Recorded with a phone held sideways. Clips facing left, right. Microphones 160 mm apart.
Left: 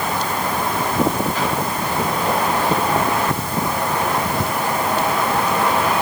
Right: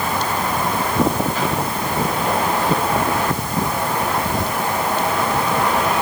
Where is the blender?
I don't hear a blender.